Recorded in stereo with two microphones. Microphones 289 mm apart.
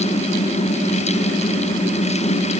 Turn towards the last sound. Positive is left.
No sound to turn to.